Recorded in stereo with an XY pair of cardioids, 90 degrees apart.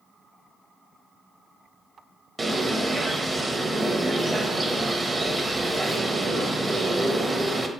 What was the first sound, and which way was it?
A bird, 30° right.